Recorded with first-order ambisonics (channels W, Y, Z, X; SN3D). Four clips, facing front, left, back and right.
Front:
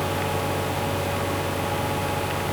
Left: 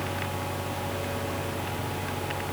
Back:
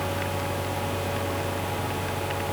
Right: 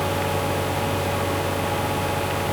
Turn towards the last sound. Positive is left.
No sound to turn to.